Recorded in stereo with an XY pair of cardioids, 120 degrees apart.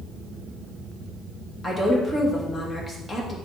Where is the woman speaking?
25° left, 2 m.